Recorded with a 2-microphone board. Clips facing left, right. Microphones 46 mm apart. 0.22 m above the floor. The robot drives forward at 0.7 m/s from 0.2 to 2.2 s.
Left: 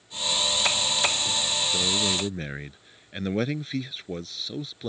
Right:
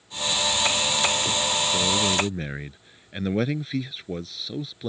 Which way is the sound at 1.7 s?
Centre (ahead or behind).